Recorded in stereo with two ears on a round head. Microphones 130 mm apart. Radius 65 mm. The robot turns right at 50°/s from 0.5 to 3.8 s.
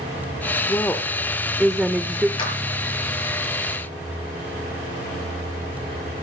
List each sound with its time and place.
0.7 s a woman speaking: 15° left (ahead or behind), 1.0 m; by 2.3 s 10° right (ahead or behind), 1.0 m
2.4 s a clap: 35° left (ahead or behind), 7.5 m; by 2.5 s 25° left (ahead or behind), 7.5 m